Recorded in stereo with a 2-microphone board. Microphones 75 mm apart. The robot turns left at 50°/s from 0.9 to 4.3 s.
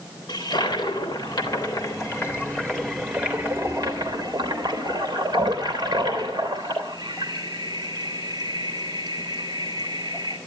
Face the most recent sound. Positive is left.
turn(degrees=-65)  # may be behind; listen again after turning